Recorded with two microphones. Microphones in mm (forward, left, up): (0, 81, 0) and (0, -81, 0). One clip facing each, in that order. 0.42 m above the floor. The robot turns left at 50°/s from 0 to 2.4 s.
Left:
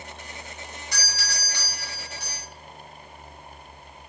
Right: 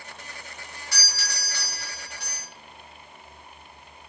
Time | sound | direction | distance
0.9 | a doorbell | 20° left (ahead or behind) | 1.2 m